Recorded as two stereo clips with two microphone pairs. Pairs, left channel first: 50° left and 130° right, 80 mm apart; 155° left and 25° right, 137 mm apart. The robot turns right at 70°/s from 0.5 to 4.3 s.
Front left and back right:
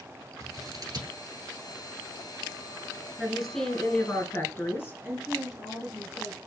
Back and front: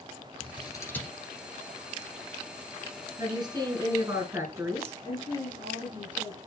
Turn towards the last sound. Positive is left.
turn(degrees=160)